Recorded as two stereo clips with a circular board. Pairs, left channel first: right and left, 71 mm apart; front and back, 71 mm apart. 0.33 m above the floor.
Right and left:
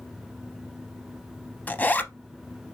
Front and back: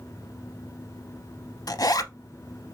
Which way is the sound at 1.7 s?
25° right.